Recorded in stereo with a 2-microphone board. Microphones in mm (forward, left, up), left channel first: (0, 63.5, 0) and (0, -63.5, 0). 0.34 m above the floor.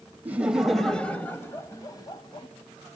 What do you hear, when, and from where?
0.2 s laughter: 15° right (ahead or behind), 1.3 m; by 2.5 s 40° left (ahead or behind), 1.8 m